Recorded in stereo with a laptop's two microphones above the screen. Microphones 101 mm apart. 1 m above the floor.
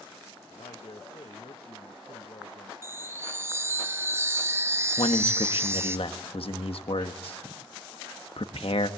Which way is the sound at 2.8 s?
25° right (ahead or behind).